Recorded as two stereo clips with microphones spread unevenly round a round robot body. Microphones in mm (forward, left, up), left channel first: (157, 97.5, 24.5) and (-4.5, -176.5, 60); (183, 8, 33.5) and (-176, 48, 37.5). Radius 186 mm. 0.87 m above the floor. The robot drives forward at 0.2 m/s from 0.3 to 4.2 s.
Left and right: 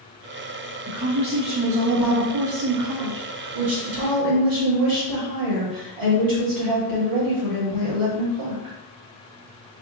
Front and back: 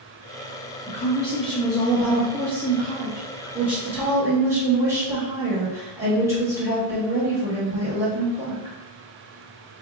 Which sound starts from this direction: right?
A woman speaking, at 0.9 s.